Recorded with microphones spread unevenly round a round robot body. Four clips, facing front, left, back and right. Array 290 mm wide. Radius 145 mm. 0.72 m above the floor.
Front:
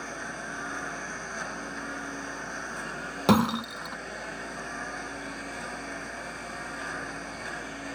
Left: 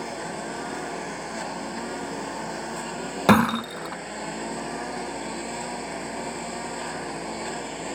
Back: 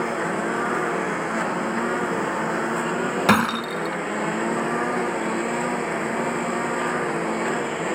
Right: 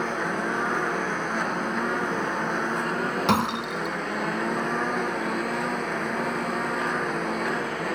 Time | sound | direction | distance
0.0 | a lawn mower | 155° right | ?
3.3 | breaking glass | 105° left | ?